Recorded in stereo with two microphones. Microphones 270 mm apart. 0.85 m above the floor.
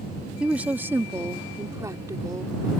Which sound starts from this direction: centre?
A woman speaking, at 0.4 s.